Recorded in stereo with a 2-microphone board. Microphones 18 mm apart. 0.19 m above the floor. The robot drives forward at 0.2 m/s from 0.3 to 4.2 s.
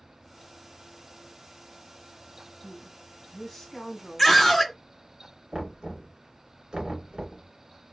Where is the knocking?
50° right (ahead or behind), 1.7 m.